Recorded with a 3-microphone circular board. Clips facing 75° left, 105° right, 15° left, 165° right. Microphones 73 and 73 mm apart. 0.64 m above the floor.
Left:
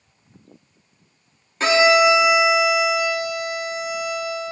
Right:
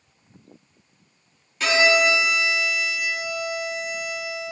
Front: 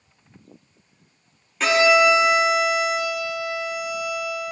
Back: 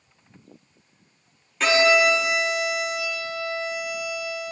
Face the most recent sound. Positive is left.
turn(degrees=105)